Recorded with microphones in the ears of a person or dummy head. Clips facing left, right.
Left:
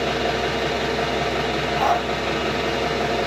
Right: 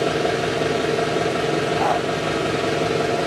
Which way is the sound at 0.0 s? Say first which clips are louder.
Right 2 dB; 25° right (ahead or behind).